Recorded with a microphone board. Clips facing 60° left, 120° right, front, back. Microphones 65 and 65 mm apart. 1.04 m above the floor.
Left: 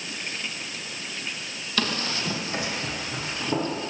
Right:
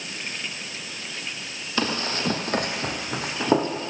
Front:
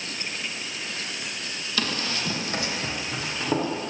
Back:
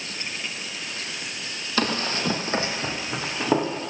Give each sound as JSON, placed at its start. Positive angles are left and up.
{"t": 1.8, "sound": "running footsteps", "azimuth_deg": -175, "distance_m": 1.2}